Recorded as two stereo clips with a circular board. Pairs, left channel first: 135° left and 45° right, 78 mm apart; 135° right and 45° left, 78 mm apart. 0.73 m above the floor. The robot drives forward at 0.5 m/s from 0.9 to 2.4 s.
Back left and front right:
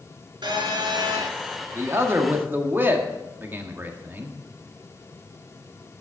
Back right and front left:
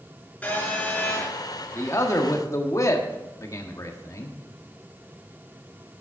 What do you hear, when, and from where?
0.4 s a phone buzzing: 60° right, 4.5 m
1.8 s a man speaking: 85° right, 1.7 m; by 4.3 s 100° right, 1.7 m